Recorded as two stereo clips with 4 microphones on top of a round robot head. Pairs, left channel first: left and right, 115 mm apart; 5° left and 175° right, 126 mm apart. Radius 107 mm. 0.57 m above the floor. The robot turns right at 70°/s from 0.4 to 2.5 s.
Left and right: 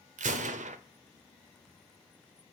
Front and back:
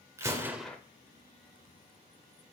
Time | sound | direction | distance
0.2 | a gunshot | 100° right | 0.8 m